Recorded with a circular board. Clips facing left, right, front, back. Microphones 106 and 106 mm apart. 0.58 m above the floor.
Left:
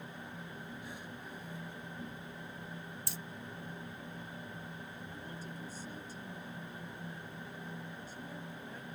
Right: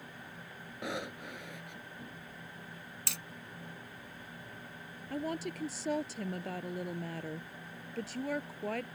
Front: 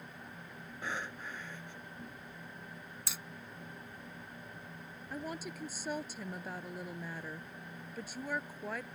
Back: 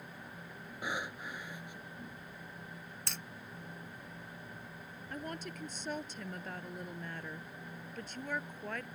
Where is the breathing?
100° right.